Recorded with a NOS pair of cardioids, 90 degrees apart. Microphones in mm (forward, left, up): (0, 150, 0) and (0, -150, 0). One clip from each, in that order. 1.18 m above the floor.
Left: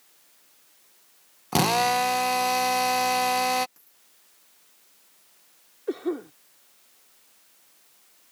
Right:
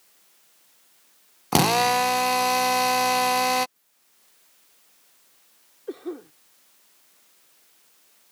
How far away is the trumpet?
I don't hear a trumpet.